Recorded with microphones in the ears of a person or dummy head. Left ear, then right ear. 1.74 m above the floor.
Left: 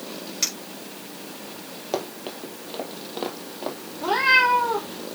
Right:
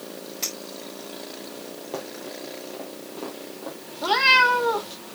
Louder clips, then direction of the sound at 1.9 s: Left 5 dB; 25° left (ahead or behind).